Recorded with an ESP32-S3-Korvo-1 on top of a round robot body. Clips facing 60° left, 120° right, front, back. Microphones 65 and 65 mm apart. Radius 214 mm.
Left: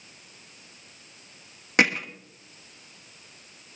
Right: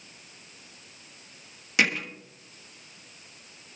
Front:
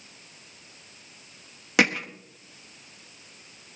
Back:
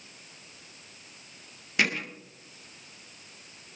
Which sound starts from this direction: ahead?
Hammering, at 1.8 s.